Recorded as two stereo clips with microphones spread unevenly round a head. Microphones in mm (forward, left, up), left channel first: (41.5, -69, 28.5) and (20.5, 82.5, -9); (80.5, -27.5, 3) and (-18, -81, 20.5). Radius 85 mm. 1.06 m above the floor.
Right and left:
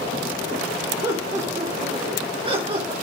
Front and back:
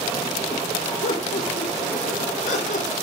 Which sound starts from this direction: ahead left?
Laughter, at 1.0 s.